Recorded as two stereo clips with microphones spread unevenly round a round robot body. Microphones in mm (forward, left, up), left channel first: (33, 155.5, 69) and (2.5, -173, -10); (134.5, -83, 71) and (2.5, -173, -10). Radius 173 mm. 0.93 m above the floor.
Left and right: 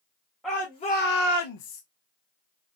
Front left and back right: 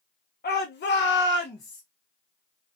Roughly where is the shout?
Ahead.